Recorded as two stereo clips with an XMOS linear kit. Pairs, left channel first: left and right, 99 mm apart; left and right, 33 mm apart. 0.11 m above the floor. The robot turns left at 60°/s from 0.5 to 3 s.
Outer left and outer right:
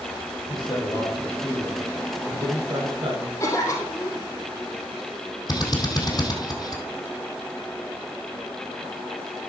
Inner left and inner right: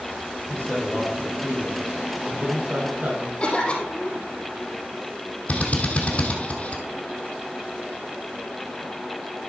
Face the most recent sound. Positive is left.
turn(degrees=45)  # may be behind; listen again after turning